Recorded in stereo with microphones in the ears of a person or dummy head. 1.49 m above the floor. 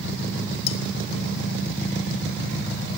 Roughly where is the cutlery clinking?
Left.